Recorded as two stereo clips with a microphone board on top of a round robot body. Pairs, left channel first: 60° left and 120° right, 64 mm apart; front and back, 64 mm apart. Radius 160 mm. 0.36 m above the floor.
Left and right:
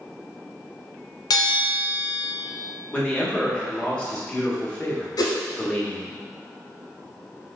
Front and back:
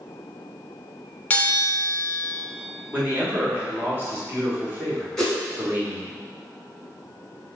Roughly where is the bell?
Ahead left.